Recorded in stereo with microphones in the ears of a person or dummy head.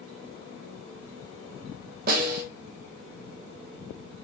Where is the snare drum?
55° right (ahead or behind), 2 m.